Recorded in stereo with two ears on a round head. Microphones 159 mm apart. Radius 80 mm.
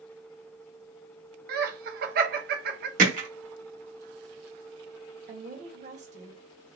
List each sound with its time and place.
1.5 s laughter: 55° right (ahead or behind), 0.8 m
3.0 s hammering: 45° right (ahead or behind), 1.2 m
5.3 s a woman speaking: 45° right (ahead or behind), 1.3 m